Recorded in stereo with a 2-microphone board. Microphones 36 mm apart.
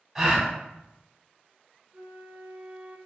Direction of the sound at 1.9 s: 55° right (ahead or behind).